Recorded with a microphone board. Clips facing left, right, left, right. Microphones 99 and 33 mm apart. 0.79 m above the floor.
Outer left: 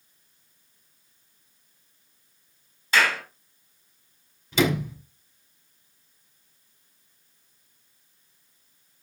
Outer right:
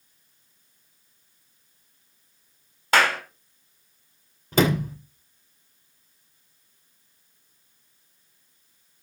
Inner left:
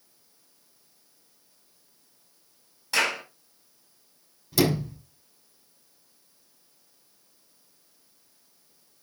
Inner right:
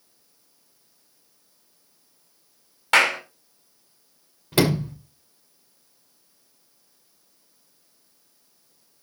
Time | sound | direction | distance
2.9 | a clap | 65° right (ahead or behind) | 4.5 m
4.5 | a sliding door | 50° right (ahead or behind) | 2.5 m